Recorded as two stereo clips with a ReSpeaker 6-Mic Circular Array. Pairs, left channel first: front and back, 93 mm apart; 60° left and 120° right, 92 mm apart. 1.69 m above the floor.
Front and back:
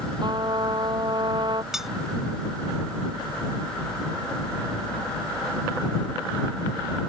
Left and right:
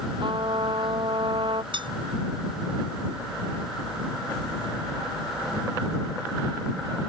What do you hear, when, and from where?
0.2 s a trumpet: 145° right
1.7 s cutlery clinking: 95° right